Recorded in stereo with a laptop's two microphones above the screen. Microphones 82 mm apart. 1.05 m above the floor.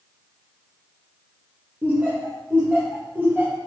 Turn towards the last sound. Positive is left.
turn(degrees=-25)  # may be behind; listen again after turning